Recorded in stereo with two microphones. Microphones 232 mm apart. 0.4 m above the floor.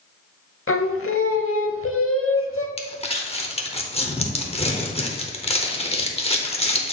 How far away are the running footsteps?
No running footsteps in this recording.